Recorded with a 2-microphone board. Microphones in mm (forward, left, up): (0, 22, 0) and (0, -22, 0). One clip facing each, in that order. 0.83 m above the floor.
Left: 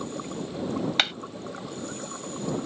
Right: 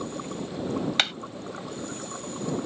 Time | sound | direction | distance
1.0 | hammering | 5° left (ahead or behind) | ?